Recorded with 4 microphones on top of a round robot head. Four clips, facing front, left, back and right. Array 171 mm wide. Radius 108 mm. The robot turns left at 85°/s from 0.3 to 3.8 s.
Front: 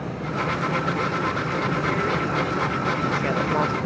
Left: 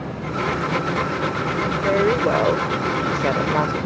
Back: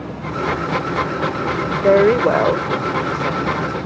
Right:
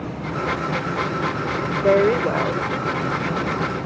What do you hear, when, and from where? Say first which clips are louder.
1.8 s a woman speaking: right 2 dB, back 12 dB; 155° right; by 3.9 s 40° left